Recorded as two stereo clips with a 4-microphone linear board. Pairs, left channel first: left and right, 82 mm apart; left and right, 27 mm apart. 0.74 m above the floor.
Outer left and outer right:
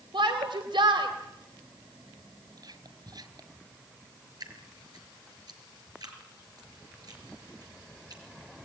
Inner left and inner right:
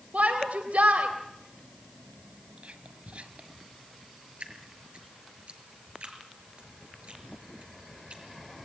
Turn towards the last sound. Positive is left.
turn(degrees=-55)  # may be behind; listen again after turning